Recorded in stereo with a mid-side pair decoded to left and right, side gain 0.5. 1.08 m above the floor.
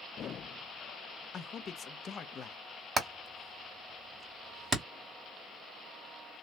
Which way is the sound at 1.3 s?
45° left.